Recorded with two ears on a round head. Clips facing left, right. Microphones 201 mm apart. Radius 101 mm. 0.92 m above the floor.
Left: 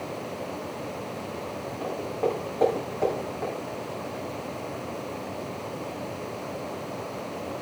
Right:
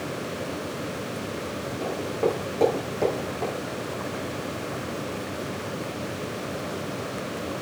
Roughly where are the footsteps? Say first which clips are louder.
Right 2 dB; right.